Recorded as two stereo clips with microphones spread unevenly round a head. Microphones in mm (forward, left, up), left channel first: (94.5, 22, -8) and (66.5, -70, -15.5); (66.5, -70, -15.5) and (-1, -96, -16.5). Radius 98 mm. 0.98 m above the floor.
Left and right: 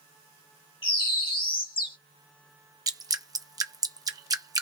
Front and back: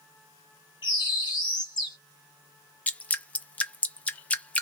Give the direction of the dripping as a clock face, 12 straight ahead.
2 o'clock.